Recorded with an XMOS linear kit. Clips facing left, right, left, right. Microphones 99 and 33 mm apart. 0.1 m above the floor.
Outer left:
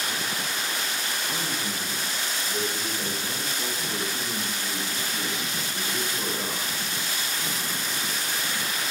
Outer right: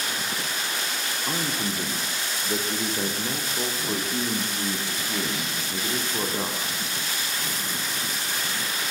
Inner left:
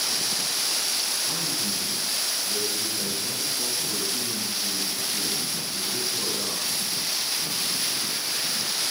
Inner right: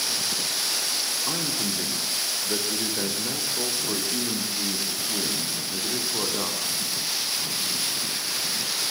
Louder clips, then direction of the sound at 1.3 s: Outer right 3 dB, inner right 1 dB; 65° right (ahead or behind).